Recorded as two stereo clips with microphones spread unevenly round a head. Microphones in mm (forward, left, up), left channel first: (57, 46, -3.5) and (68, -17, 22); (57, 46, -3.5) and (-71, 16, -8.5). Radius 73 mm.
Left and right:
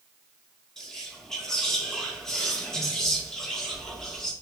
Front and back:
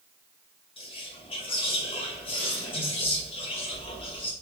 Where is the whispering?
45° left, 1.2 m.